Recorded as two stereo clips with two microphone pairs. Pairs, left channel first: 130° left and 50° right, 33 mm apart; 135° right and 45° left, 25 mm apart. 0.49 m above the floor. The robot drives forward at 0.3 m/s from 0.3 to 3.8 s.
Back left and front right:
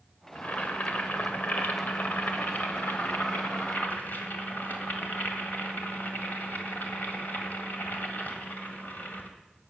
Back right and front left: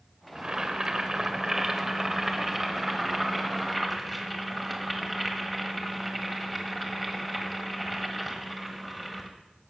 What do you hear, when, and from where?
0.3 s boiling: 95° left, 1.3 m; by 9.3 s 135° left, 1.7 m